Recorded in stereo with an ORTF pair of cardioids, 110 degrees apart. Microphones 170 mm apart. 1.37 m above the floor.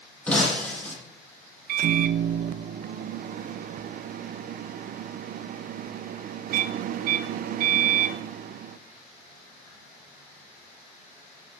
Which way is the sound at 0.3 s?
10° left.